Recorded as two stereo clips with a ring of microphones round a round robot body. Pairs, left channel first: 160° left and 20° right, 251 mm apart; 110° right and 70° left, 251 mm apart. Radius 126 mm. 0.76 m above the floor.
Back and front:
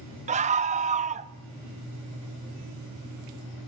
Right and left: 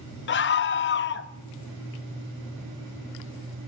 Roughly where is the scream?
Right.